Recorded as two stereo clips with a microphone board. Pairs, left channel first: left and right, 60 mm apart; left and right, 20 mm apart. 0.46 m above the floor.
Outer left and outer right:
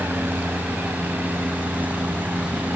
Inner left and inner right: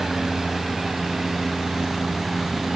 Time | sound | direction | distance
0.0 | a helicopter | 35° right (ahead or behind) | ?